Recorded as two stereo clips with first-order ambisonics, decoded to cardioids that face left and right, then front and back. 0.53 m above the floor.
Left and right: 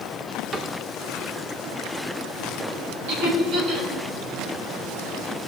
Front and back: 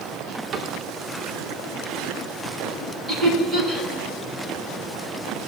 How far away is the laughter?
About 5 m.